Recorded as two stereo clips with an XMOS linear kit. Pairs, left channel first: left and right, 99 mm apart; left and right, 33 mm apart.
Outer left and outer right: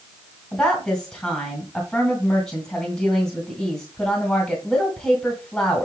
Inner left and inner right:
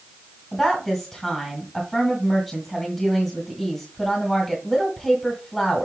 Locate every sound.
0.5 s a woman speaking: 10° left (ahead or behind), 2.5 m